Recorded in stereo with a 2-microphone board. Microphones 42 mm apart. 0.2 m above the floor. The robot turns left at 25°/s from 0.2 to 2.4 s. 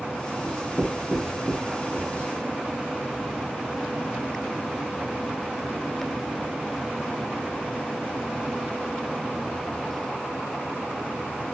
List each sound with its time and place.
0.4 s writing: 5° left (ahead or behind), 2.5 m; by 2.3 s 40° left (ahead or behind), 2.5 m